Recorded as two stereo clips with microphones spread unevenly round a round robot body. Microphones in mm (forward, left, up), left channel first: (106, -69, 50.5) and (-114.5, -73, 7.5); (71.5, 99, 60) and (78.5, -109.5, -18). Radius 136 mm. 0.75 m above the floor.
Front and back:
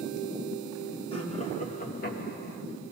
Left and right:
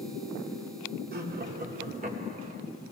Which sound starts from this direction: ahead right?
Laughter, at 1.1 s.